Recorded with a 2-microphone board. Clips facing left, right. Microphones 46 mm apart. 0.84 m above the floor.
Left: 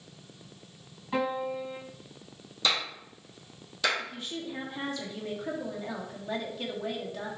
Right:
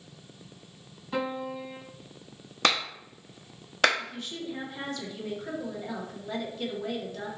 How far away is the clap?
About 0.9 m.